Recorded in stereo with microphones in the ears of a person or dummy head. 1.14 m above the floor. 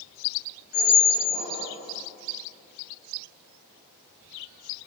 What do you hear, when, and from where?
0.7 s a squeak: 55° left (ahead or behind), 1.5 m